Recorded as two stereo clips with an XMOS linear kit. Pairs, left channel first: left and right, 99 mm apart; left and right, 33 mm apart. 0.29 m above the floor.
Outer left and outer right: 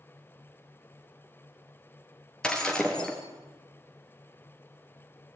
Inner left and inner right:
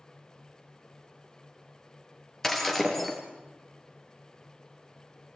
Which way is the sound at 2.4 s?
5° left (ahead or behind).